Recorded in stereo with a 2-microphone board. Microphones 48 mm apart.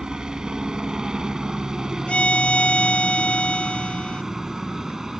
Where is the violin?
25° left (ahead or behind).